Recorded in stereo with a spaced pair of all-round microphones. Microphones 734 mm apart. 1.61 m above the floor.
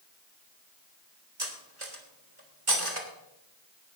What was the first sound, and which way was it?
Cutlery clinking, 45° right (ahead or behind).